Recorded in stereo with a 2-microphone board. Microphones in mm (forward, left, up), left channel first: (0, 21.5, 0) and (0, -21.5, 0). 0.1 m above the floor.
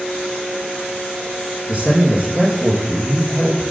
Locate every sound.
1.7 s a man speaking: 25° right (ahead or behind), 3 m